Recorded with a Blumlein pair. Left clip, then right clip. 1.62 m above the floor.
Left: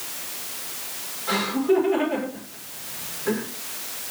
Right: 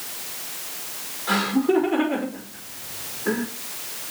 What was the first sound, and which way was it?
Laughter, 20° right.